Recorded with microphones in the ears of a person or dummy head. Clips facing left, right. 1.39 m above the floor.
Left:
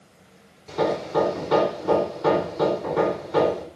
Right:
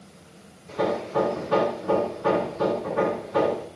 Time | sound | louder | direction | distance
0.7 | hammering | left 2 dB | 80° left | 3.5 m